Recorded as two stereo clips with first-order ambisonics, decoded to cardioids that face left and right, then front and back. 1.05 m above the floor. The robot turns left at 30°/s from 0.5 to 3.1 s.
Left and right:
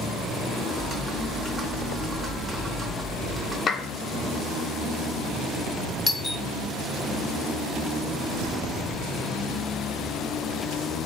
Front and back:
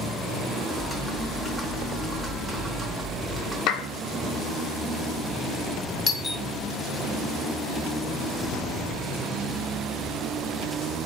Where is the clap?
30° left, 0.6 m.